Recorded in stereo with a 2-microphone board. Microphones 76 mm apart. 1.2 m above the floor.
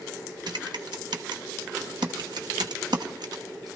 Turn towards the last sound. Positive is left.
turn(degrees=-65)  # may be behind; listen again after turning